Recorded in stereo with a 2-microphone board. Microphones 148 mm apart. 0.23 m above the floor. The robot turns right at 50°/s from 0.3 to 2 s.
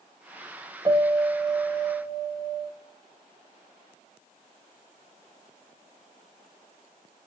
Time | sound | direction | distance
0.8 | a piano | 25° right | 2.5 m